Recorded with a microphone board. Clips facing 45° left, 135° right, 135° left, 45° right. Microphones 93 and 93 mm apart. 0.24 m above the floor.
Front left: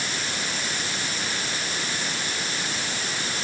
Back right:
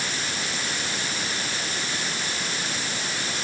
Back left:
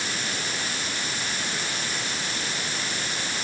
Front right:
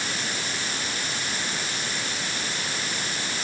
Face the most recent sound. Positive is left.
No sound to turn to.